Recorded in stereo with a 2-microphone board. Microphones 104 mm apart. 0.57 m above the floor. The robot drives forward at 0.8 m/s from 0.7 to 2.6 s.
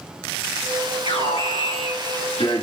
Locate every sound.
1.1 s an alarm: 75° left (ahead or behind), 7 m; by 2.6 s 65° left (ahead or behind), 7.5 m